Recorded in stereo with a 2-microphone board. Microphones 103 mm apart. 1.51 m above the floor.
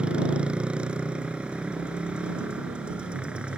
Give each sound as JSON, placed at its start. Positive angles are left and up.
{"t": 0.0, "sound": "a motorcycle", "side_deg": -10}